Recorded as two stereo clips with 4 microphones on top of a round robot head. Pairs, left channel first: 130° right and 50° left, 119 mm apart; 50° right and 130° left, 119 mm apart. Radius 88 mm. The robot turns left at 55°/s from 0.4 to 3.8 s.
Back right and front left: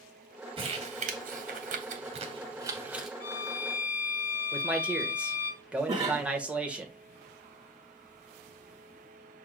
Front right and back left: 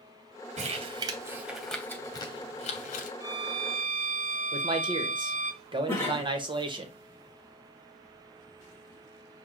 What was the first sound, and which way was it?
Crumpling, 100° left.